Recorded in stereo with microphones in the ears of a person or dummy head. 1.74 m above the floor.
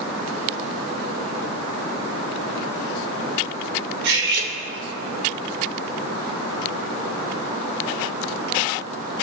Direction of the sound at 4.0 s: 60° right (ahead or behind).